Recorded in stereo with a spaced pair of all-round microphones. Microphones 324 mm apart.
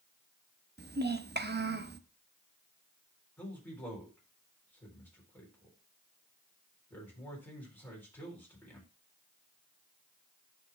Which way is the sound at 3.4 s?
5° left (ahead or behind).